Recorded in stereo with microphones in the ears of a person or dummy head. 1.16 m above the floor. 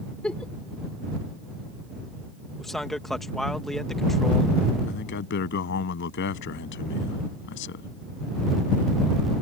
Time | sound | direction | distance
0.2 | a giggle | centre (ahead or behind) | ?
2.6 | a man speaking | 5° right (ahead or behind) | ?
4.9 | a man speaking | 60° left (ahead or behind) | ?